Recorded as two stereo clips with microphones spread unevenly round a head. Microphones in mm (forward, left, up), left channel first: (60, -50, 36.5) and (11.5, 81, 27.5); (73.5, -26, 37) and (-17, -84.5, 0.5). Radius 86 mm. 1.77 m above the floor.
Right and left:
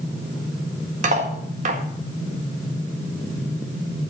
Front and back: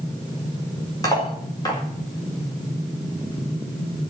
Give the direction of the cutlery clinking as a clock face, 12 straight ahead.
9 o'clock.